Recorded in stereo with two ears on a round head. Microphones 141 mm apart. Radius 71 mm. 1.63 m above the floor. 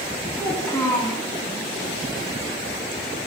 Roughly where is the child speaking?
Centre.